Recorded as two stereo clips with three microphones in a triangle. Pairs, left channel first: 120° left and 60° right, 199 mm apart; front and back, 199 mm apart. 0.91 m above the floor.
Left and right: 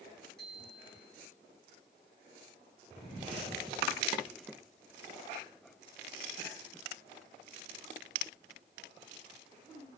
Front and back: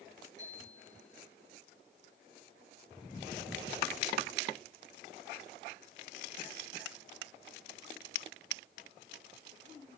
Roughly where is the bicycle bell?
Ahead right.